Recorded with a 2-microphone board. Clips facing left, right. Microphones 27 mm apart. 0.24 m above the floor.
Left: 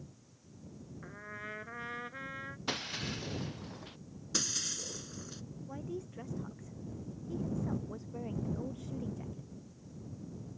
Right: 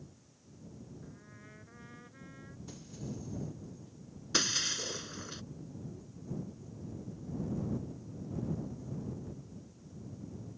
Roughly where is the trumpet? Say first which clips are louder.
Left 9 dB; left.